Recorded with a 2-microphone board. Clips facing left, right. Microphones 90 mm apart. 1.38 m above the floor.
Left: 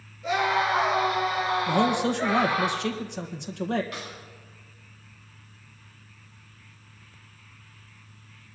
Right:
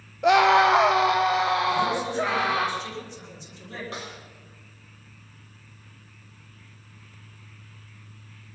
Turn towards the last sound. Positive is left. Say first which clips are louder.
# right 1 dB
turn(degrees=-30)  # may be behind; listen again after turning